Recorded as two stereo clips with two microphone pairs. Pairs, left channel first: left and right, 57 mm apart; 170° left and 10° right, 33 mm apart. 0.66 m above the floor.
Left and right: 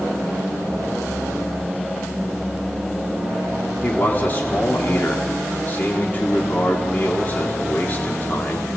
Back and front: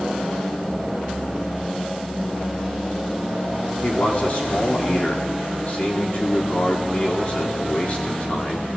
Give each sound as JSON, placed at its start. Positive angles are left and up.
{"t": 3.8, "sound": "a man speaking", "azimuth_deg": 140, "distance_m": 1.9}